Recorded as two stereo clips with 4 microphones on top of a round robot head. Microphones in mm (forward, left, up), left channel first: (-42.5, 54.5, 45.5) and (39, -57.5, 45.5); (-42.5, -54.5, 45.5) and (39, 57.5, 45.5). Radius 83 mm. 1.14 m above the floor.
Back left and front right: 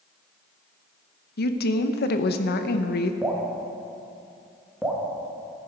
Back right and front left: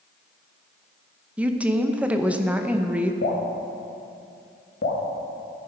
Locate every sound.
1.4 s a woman speaking: 135° left, 1.0 m
3.2 s dripping: 140° right, 2.0 m